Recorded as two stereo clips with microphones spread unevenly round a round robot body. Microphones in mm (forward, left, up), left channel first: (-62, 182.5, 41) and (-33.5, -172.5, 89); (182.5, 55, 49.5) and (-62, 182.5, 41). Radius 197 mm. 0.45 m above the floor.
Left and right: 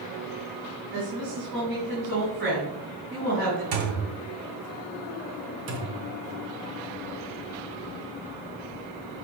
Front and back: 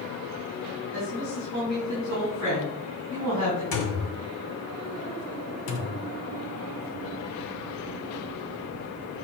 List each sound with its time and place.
0.9 s a woman speaking: 50° right, 4 m
3.7 s a thud: 50° right, 2 m
5.7 s a thud: 25° right, 1.5 m